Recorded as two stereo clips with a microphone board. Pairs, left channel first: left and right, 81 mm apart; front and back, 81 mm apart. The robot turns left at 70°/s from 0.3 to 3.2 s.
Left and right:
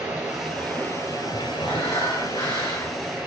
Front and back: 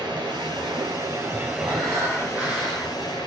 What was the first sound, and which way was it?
Running water, 160° right.